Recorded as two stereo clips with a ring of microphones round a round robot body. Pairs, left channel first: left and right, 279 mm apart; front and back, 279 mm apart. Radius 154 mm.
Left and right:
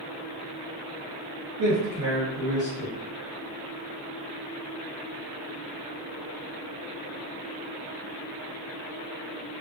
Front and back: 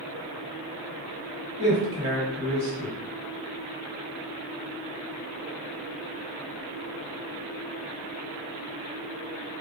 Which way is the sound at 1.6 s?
115° right.